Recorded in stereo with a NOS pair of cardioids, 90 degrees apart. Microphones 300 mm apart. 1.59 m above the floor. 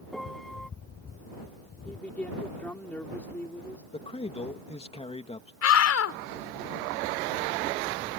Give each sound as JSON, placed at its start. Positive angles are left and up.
{"t": 0.1, "sound": "a piano", "azimuth_deg": 0}
{"t": 1.9, "sound": "a woman speaking", "azimuth_deg": 5}
{"t": 3.9, "sound": "a man speaking", "azimuth_deg": 20}
{"t": 5.6, "sound": "a scream", "azimuth_deg": 55}